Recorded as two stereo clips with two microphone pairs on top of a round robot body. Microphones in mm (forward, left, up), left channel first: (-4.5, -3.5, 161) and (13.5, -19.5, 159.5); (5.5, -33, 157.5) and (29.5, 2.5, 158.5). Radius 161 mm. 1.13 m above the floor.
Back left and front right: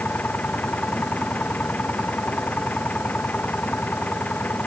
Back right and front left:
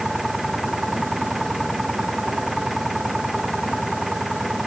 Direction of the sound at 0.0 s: 140° left.